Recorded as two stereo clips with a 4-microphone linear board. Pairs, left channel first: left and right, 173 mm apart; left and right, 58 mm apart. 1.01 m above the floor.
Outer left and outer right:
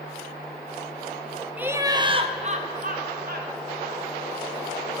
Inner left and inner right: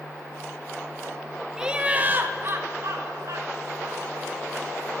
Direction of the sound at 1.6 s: 10° right (ahead or behind).